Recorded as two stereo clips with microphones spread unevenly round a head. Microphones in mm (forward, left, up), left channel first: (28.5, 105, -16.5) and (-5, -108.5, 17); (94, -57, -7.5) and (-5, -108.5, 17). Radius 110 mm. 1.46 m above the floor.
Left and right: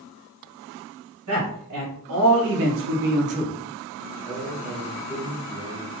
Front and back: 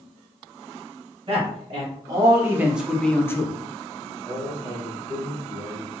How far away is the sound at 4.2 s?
About 0.9 m.